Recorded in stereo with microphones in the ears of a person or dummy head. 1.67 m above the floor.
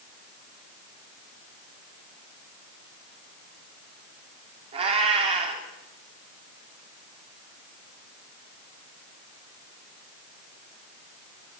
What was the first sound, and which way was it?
A cat meowing, 35° right (ahead or behind).